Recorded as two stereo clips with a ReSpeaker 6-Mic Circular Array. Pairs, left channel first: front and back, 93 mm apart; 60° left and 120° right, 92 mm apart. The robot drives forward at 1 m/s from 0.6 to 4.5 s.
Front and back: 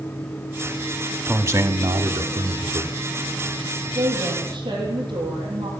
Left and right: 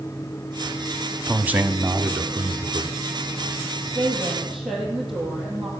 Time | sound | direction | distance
1.3 | a man speaking | 170° right | 1.2 m
4.0 | a woman speaking | 150° left | 7 m